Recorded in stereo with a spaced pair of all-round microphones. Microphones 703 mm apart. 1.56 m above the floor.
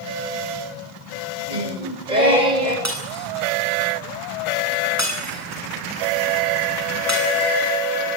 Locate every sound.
1.5 s singing: 85° right, 7.5 m
2.9 s breaking glass: 20° right (ahead or behind), 9 m